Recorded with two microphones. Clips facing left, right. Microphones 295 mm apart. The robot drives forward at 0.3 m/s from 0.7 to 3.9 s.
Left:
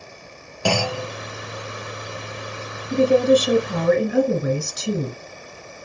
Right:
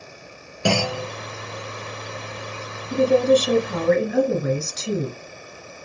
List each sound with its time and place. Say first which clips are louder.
0.7 s a clunk: right 1 dB; 25° right (ahead or behind), 0.6 m
2.9 s a woman speaking: left 1 dB; 15° left (ahead or behind), 1.5 m